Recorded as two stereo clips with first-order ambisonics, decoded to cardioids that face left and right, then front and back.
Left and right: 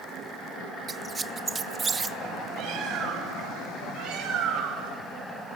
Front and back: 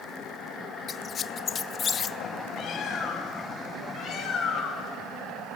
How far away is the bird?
About 4 m.